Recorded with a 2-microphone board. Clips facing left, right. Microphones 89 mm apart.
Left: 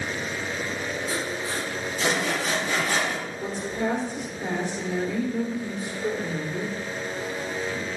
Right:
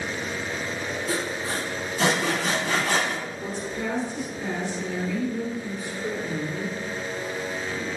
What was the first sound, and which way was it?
Sawing, 90° right.